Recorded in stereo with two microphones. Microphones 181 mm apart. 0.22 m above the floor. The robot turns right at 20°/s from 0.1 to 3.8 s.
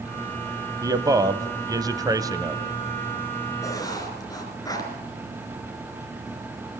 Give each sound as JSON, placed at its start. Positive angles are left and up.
{"t": 0.8, "sound": "a man speaking", "side_deg": -20, "distance_m": 1.0}
{"t": 3.6, "sound": "writing", "side_deg": 15, "distance_m": 3.5}